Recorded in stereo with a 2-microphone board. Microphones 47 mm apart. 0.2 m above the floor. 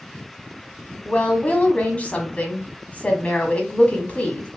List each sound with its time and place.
1.1 s a woman speaking: 30° left (ahead or behind), 1.0 m